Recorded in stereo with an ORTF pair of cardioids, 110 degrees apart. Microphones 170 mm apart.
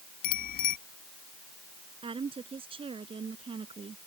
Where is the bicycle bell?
60° left.